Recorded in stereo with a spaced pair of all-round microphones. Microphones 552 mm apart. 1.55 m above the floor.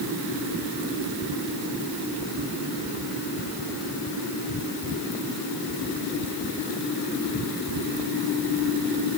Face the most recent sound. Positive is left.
No sound to turn to.